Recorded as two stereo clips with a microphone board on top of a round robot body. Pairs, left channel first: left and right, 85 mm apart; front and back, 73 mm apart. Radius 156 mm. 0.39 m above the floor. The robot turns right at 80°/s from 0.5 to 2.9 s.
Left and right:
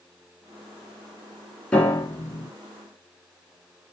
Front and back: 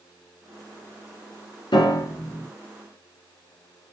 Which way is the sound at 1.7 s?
15° left.